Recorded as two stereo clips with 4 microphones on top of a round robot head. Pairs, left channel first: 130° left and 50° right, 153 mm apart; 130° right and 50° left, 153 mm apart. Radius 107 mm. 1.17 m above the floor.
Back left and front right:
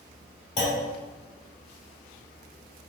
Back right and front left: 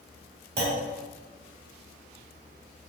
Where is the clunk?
75° left, 1.4 m.